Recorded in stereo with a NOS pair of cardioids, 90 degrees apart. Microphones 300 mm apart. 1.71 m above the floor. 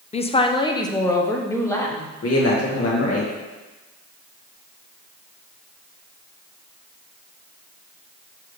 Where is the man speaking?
50° left, 2.5 m.